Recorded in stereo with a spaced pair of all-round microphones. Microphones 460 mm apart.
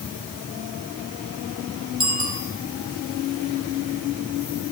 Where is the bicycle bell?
65° right (ahead or behind), 4.5 m.